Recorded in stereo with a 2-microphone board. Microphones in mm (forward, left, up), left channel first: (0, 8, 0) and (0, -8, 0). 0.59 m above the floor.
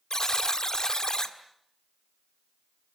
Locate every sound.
0.1 s a buzzer: 45° left (ahead or behind), 1.8 m